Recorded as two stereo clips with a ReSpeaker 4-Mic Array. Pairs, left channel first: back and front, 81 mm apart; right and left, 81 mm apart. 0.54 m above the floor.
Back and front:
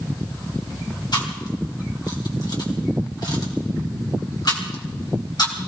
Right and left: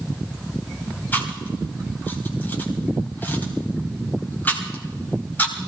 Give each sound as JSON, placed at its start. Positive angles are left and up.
{"t": 1.1, "sound": "chewing", "azimuth_deg": -155, "distance_m": 3.5}